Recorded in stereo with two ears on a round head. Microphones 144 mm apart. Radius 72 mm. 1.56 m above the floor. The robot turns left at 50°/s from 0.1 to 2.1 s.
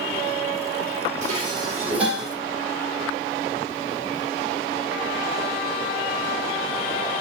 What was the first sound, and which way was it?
Dishes clattering, 130° right.